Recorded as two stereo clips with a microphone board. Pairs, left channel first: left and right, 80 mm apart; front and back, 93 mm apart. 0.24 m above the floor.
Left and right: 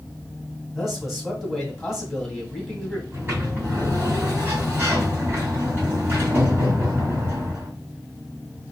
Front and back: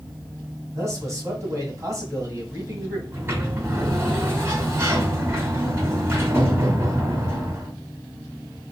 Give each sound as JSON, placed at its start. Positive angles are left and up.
{"t": 0.8, "sound": "a man speaking", "azimuth_deg": -175, "distance_m": 1.8}
{"t": 3.1, "sound": "a sliding door", "azimuth_deg": -130, "distance_m": 2.0}